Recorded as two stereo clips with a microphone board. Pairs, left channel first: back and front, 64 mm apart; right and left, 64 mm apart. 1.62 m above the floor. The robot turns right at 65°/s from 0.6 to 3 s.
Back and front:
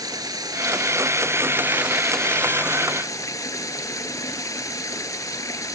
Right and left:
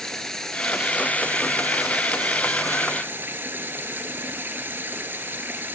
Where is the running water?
5° right; by 5.8 s 150° left.